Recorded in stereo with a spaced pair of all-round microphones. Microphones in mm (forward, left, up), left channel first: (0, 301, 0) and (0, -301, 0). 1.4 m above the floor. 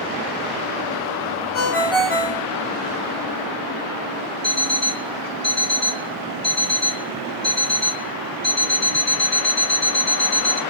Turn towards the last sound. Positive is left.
turn(degrees=25)  # may be behind; listen again after turning